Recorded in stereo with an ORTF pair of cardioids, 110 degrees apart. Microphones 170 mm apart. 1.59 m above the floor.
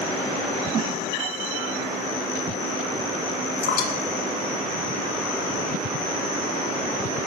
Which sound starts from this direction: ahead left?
Dripping, at 3.6 s.